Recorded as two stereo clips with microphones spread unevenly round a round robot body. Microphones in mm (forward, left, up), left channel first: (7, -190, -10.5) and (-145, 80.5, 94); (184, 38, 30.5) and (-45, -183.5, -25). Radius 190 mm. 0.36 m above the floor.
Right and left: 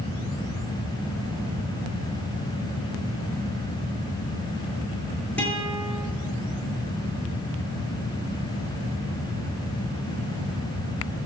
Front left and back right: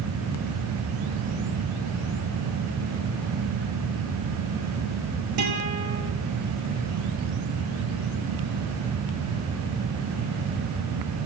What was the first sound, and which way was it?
A guitar, 145° right.